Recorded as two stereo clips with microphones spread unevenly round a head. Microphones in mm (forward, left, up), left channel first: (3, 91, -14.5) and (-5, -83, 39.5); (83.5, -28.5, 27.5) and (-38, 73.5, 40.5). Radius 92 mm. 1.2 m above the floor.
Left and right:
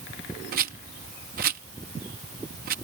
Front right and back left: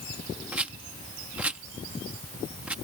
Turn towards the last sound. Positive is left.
turn(degrees=-135)